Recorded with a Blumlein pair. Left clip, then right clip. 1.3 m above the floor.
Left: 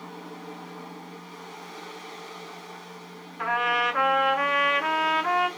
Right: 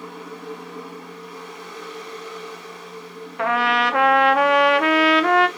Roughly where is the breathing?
I don't hear breathing.